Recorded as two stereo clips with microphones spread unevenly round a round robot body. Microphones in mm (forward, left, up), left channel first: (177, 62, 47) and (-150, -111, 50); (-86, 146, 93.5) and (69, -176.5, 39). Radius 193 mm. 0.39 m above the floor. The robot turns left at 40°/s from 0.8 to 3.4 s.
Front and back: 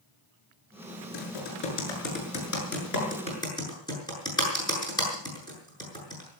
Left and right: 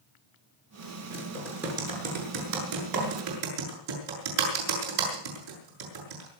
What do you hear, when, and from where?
1.1 s typing on a keyboard: 40° left, 7 m; by 6.4 s 50° right, 7 m